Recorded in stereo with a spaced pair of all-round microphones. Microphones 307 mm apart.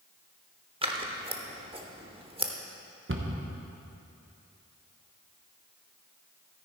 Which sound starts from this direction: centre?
Scissors, at 0.8 s.